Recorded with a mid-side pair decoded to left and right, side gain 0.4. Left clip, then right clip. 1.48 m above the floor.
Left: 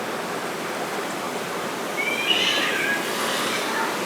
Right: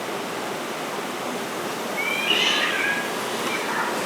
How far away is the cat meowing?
About 2 m.